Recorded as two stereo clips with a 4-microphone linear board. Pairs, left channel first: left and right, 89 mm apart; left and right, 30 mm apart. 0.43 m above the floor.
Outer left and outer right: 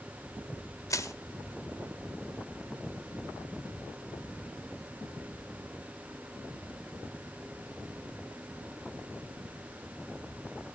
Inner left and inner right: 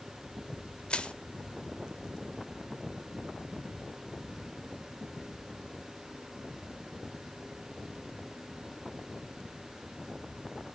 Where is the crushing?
40° left (ahead or behind), 0.9 m.